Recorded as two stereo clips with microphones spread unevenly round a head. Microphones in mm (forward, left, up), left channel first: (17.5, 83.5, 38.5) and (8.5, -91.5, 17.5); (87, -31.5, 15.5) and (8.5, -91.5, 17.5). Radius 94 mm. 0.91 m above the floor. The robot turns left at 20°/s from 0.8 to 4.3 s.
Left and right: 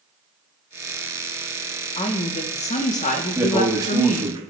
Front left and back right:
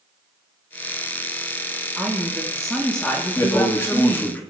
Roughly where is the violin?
No violin in this recording.